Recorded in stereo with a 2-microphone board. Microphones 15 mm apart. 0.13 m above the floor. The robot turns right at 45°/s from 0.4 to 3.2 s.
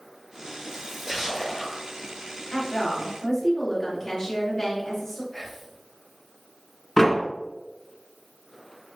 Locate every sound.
0.7 s a splash: 20° right, 1.2 m; by 1.9 s 30° left, 1.2 m
2.5 s a woman speaking: 95° left, 1.8 m; by 5.2 s 125° left, 1.8 m
5.3 s whispering: 10° left (ahead or behind), 1.1 m
7.0 s a door slam: 25° left (ahead or behind), 0.8 m